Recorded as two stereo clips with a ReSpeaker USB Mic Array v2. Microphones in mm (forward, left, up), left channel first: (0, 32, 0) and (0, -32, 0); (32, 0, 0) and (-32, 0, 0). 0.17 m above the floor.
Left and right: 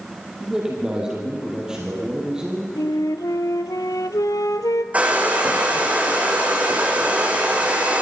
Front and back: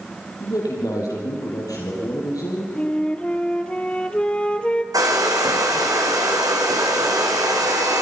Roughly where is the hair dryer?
Behind.